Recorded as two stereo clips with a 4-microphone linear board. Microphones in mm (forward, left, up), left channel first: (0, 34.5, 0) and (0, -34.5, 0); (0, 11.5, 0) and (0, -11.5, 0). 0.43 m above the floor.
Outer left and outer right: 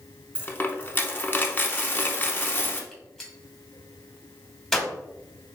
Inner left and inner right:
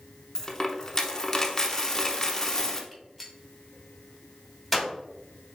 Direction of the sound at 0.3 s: 25° left (ahead or behind).